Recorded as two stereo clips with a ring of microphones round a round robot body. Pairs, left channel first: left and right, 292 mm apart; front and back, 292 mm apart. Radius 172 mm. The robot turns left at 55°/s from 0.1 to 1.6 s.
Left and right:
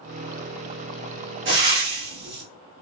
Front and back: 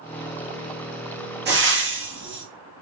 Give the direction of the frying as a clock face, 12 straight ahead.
4 o'clock.